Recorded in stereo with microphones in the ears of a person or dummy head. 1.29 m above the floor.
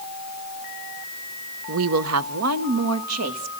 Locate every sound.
1.7 s a woman speaking: 65° right (ahead or behind), 0.6 m; by 3.5 s 80° right, 1.9 m